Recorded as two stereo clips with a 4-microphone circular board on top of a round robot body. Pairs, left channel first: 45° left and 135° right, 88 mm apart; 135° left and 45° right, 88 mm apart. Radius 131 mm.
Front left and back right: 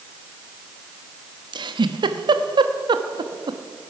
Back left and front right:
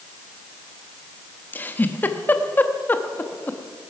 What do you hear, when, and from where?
1.5 s a giggle: 160° right, 1.0 m